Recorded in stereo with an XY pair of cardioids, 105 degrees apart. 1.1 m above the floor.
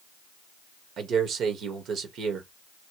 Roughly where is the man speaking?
Ahead right.